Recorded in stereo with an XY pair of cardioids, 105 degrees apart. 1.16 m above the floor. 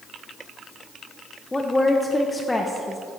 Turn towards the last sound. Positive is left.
turn(degrees=15)